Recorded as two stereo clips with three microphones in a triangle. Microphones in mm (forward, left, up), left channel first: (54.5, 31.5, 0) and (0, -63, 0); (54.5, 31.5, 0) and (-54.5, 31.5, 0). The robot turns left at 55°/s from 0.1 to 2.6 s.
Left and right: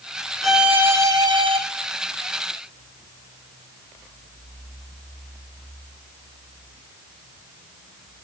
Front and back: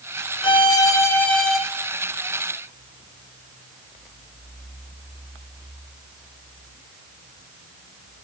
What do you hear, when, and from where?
0.4 s a violin: 30° right, 3 m; by 1.6 s 95° right, 3 m